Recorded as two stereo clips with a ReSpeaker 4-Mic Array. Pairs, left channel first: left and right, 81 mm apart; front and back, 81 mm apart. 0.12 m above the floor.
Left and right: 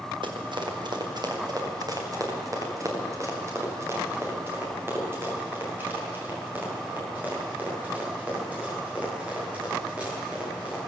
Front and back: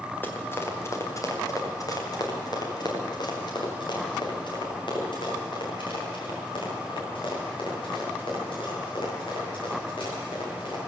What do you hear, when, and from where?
0.2 s running footsteps: 65° right, 4 m; by 10.9 s 15° right, 14.5 m